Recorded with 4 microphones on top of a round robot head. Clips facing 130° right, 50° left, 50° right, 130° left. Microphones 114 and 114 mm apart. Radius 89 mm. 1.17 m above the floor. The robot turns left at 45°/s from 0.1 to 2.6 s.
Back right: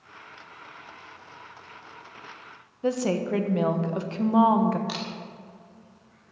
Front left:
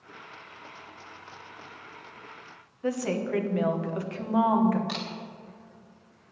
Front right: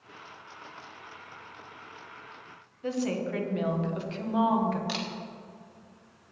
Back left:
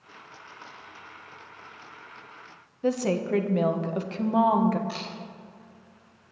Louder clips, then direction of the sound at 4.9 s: Back right 1 dB, front right 2 dB; 45° right.